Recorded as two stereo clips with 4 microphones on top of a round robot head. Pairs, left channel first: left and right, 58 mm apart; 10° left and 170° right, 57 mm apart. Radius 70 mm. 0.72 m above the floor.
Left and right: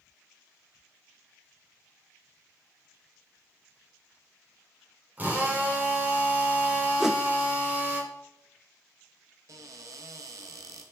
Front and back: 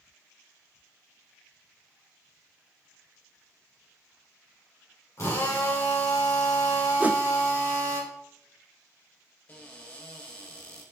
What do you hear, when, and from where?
5.2 s a drill: 30° right, 3.5 m
7.0 s a whoosh: 160° right, 0.6 m
9.5 s a cupboard door: 60° right, 1.2 m